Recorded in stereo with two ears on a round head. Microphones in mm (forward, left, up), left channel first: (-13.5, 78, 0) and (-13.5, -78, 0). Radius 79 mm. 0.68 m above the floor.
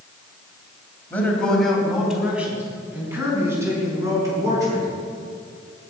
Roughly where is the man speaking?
Centre.